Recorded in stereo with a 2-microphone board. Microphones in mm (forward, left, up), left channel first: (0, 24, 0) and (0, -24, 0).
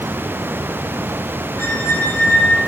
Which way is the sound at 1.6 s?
55° left (ahead or behind).